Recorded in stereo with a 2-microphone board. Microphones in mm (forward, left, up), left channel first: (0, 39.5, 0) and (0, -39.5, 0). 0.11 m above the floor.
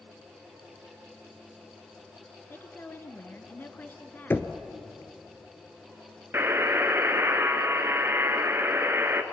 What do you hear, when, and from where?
2.5 s a woman speaking: 25° left (ahead or behind), 1.4 m
4.3 s knocking: 25° left (ahead or behind), 1.1 m
6.3 s a buzzer: 30° right (ahead or behind), 1.2 m